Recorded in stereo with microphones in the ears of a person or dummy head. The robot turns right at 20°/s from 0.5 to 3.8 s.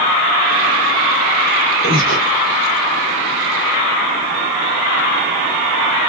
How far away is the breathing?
About 1.7 m.